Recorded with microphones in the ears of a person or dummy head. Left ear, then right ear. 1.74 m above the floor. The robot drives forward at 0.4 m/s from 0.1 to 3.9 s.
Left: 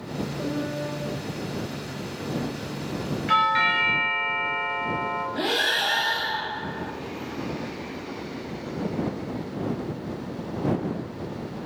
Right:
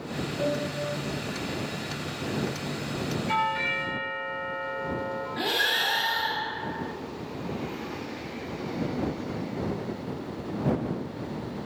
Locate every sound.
0.4 s a piano: 70° left (ahead or behind), 3.5 m; by 0.9 s 65° left (ahead or behind), 3.5 m
3.3 s a doorbell: 50° left (ahead or behind), 2.0 m; by 5.2 s 55° left (ahead or behind), 1.8 m
5.3 s breathing: 25° left (ahead or behind), 1.2 m